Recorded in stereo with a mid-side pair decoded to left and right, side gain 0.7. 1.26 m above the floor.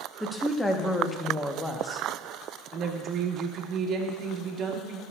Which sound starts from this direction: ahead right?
A woman speaking, at 2.7 s.